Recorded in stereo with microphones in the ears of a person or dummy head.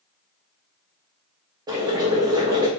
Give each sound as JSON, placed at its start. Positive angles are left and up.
{"t": 1.7, "sound": "boiling", "side_deg": -20, "distance_m": 0.9}